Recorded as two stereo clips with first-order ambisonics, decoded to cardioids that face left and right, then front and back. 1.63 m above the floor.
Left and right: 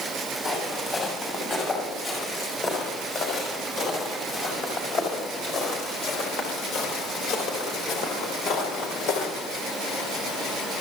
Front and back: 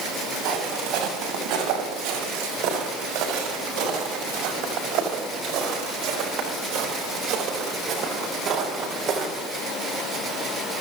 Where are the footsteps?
160° left, 7 m; by 9.3 s 120° left, 4 m.